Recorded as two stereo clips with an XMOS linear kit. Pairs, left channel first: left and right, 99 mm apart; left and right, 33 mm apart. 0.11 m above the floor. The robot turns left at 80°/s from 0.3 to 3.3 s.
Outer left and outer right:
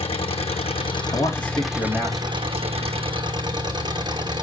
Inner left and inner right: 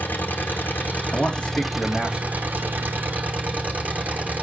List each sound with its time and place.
0.0 s an engine running: 110° left, 1.6 m; by 4.4 s 130° right, 1.6 m
1.1 s a man speaking: 75° left, 7 m; by 3.0 s 75° right, 7 m